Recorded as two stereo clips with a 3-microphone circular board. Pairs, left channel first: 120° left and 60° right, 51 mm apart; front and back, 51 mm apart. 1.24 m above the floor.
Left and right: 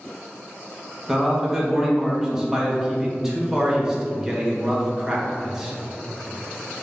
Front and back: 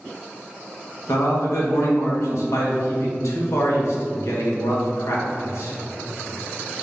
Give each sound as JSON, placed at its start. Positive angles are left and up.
{"t": 1.1, "sound": "a man speaking", "azimuth_deg": 20, "distance_m": 1.2}